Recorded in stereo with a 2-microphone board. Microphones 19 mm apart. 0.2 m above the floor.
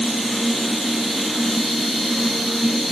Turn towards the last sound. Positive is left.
No sound to turn to.